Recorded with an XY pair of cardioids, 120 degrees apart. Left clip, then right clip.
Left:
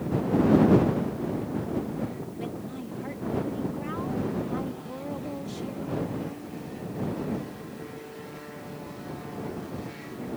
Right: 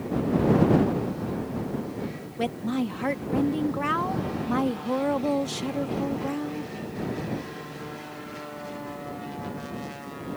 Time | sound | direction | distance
2.4 | a woman speaking | 70° right | ?